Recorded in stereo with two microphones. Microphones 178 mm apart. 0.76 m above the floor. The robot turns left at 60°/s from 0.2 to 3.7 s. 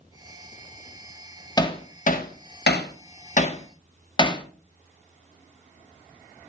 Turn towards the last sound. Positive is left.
turn(degrees=30)  # may be behind; listen again after turning